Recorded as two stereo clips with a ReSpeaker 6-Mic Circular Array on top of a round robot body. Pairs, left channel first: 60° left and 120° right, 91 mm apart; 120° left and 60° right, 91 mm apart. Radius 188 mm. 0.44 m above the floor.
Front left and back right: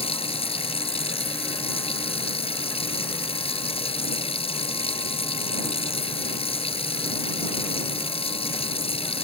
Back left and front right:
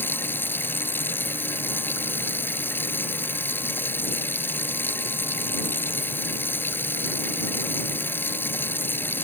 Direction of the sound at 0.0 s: 50° left.